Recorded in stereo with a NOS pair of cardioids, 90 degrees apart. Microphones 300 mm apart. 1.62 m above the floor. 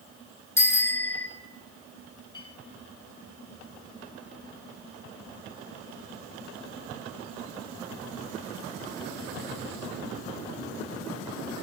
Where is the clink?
15° left, 7.5 m.